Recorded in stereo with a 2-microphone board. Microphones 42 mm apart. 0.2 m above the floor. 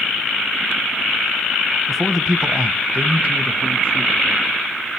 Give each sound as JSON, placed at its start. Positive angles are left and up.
{"t": 1.9, "sound": "a man speaking", "side_deg": 0, "distance_m": 1.3}